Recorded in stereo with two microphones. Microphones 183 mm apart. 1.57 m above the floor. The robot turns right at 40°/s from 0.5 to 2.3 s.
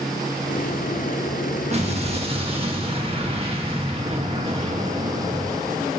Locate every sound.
1.7 s an explosion: 40° right (ahead or behind), 1.0 m; by 5.9 s 35° right (ahead or behind), 1.0 m